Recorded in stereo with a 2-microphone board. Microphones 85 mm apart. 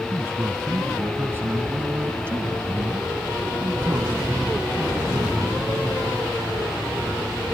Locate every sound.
0.1 s a man speaking: 30° right (ahead or behind)